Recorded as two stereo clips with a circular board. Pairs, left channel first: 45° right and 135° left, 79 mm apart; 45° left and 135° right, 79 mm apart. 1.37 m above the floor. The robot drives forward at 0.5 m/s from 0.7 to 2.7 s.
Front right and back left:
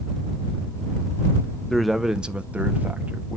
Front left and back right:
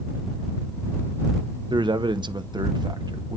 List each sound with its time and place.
1.7 s a man speaking: 130° right, 0.5 m; by 3.4 s 155° right, 0.9 m